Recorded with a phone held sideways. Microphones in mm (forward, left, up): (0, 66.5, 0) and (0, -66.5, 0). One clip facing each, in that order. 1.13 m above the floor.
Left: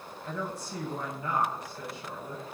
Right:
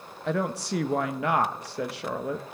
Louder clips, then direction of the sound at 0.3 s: Right 9 dB; 85° right.